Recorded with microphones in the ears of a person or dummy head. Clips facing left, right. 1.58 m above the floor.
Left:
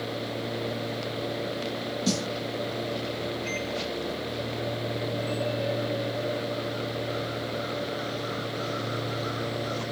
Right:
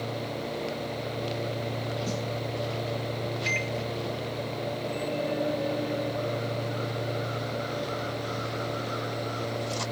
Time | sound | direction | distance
2.1 | a snare drum | 85° left | 0.7 m
3.5 | a microwave | 35° right (ahead or behind) | 1.7 m